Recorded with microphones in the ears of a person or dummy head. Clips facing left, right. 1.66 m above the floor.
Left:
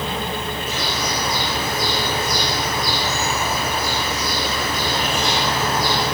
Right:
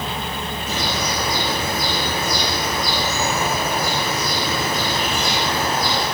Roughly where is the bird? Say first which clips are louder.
Right 3 dB; right.